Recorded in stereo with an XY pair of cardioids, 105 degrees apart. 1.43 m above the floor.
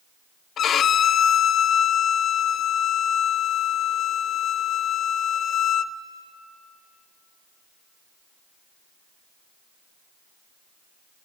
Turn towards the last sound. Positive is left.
turn(degrees=60)